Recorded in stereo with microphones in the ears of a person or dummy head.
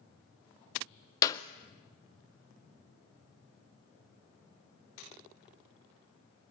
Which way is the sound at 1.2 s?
20° left (ahead or behind).